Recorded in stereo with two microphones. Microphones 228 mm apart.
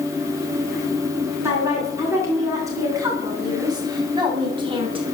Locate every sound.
1.4 s a woman speaking: 10° right (ahead or behind), 5 m; by 5.1 s 25° right (ahead or behind), 2.5 m